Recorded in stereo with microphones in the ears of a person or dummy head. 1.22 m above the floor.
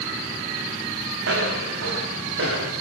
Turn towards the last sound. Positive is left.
turn(degrees=-60)  # may be behind; listen again after turning